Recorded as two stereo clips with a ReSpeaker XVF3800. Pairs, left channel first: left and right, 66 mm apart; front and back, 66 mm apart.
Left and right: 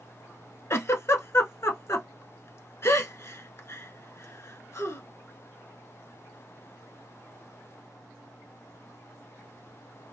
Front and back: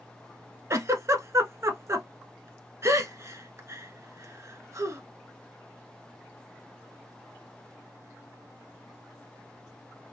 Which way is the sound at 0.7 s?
135° left.